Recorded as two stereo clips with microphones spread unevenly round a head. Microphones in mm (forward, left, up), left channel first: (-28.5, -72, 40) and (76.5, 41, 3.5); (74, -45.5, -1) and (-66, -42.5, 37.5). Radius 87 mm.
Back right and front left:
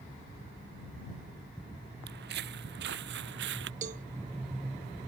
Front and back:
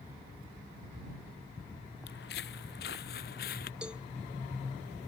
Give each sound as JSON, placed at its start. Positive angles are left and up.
{"t": 2.1, "sound": "footsteps", "azimuth_deg": 30}
{"t": 3.8, "sound": "a cowbell", "azimuth_deg": 90}